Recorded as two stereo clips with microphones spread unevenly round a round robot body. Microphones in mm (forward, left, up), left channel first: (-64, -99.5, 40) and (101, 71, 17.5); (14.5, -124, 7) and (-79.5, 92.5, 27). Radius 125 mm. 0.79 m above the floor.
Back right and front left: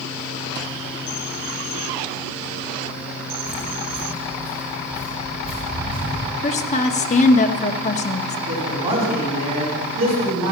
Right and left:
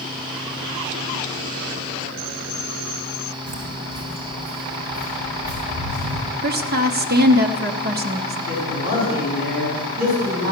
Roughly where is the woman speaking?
Behind.